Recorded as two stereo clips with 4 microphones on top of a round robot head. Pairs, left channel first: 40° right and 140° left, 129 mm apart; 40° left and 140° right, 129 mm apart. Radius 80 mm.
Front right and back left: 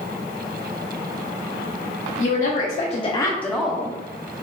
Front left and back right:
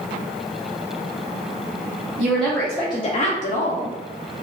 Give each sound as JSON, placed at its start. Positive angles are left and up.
{"t": 2.2, "sound": "a woman speaking", "azimuth_deg": -55, "distance_m": 1.0}